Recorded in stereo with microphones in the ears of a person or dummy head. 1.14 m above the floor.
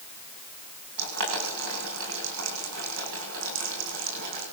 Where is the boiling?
75° right (ahead or behind), 8 m.